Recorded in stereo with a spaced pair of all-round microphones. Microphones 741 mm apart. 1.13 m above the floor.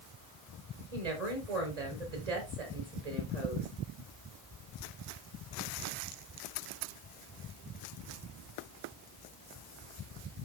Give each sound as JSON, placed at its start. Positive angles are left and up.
{"t": 0.9, "sound": "a woman speaking", "side_deg": -55, "distance_m": 4.5}